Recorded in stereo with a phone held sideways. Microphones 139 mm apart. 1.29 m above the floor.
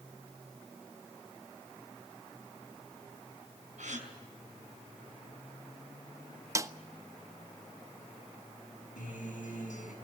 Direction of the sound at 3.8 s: 65° right (ahead or behind).